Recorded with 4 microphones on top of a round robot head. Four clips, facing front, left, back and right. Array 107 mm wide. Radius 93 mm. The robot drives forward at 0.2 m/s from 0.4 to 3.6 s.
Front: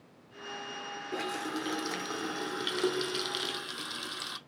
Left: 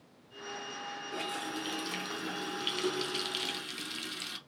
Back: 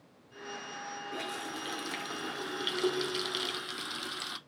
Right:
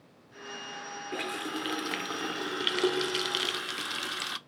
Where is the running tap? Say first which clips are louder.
Right 3 dB, front 7 dB; 50° right, 1.0 m; by 4.4 s 90° right, 0.9 m.